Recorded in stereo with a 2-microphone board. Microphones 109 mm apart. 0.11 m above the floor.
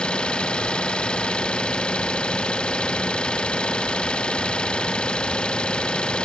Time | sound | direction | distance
0.0 | an engine running | 10° left (ahead or behind) | ?